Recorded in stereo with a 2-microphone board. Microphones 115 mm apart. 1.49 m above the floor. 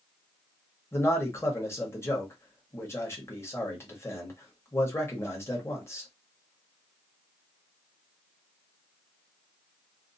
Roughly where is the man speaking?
Left.